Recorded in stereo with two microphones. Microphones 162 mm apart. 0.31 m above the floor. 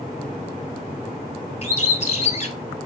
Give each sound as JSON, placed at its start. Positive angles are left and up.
{"t": 1.6, "sound": "a bird", "side_deg": 45, "distance_m": 0.9}